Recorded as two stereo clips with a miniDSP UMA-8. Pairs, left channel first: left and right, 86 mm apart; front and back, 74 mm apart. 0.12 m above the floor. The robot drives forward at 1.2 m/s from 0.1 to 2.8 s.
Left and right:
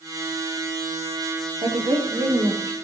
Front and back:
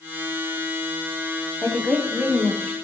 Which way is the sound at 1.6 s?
95° right.